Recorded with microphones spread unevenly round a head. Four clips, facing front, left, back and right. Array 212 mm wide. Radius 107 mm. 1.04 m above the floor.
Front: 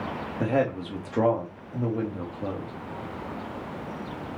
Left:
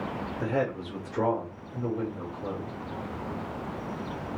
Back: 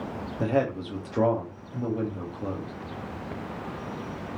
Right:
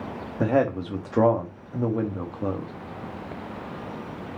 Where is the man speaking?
80° right, 2.5 m.